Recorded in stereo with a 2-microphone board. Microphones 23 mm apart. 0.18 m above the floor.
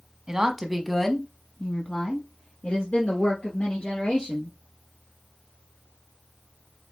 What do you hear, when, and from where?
0.3 s a woman speaking: 30° right (ahead or behind), 1.1 m; by 4.5 s 70° left (ahead or behind), 3 m